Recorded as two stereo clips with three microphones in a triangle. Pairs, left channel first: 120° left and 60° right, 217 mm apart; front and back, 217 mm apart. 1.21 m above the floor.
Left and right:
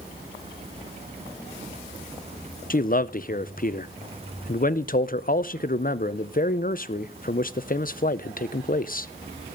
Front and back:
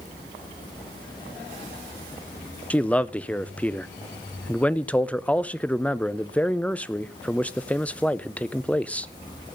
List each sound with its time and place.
2.7 s a man speaking: 85° left, 0.5 m